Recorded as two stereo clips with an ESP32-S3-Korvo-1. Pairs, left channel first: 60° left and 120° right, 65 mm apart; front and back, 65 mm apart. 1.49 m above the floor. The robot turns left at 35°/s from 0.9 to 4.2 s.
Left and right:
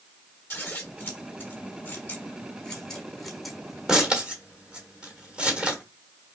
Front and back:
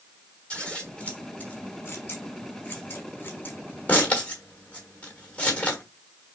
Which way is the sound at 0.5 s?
60° left.